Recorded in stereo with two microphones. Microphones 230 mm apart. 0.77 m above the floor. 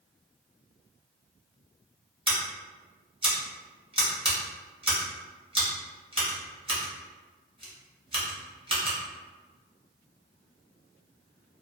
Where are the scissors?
25° right (ahead or behind), 0.8 m.